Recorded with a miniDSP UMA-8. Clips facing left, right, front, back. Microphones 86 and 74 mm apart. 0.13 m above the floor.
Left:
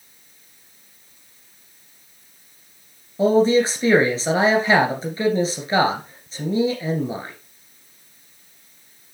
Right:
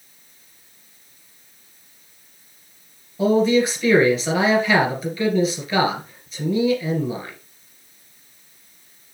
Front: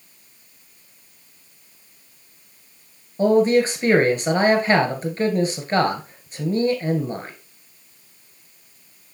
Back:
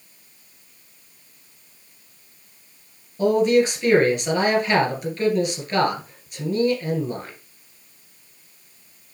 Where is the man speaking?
45° left, 1.8 m.